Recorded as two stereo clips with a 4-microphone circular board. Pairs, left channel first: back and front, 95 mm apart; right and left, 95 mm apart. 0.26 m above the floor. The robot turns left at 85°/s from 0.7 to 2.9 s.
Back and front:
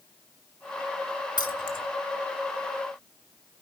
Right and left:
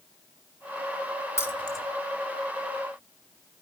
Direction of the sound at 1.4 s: 145° right.